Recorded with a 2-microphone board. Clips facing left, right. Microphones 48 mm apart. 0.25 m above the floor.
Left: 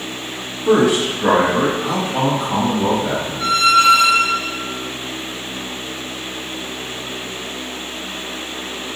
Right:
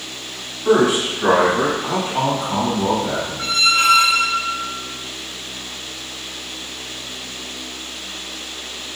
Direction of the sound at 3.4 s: 55° right (ahead or behind).